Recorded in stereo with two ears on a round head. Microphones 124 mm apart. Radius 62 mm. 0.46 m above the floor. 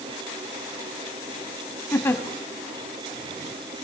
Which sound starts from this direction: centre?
A giggle, at 1.9 s.